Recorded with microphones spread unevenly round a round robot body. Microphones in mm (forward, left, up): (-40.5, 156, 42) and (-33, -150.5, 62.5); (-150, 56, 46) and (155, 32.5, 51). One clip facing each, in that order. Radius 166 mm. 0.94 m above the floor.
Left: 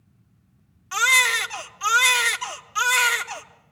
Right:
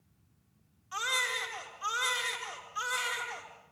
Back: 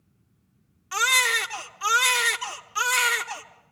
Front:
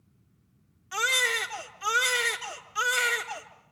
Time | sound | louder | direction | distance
0.9 | a baby crying | left 8 dB, even | 105° left | 1.2 m